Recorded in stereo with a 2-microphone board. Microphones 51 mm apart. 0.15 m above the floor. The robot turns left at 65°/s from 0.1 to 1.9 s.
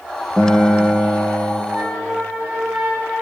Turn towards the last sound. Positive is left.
turn(degrees=0)  # may be behind; listen again after turning